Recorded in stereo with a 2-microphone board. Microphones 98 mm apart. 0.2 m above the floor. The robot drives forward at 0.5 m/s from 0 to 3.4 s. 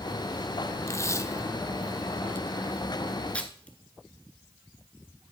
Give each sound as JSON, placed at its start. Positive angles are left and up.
{"t": 0.9, "sound": "tape being pulled", "side_deg": 30, "distance_m": 0.5}